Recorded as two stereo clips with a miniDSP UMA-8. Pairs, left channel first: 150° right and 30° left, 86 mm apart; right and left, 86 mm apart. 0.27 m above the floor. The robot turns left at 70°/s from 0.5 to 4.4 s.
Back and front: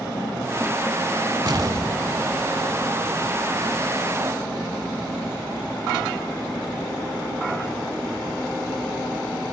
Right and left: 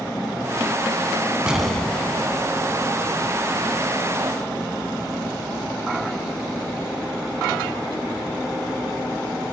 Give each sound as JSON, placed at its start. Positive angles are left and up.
{"t": 1.5, "sound": "an explosion", "azimuth_deg": 10, "distance_m": 0.9}